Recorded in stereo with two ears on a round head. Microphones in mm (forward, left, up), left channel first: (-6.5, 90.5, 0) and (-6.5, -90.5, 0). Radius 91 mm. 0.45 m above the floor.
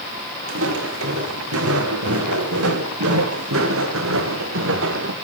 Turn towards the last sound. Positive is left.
turn(degrees=-65)  # may be behind; listen again after turning